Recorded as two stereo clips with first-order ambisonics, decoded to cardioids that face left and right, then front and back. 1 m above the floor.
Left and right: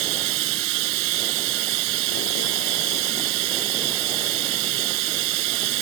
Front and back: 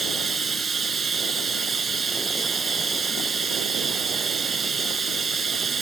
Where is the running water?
110° right.